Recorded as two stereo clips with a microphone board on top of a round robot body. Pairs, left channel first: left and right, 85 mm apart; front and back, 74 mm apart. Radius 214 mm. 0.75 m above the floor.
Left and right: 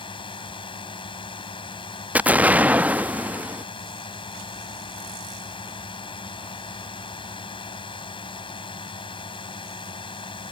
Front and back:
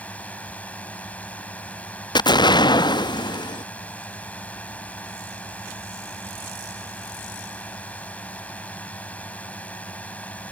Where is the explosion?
15° right.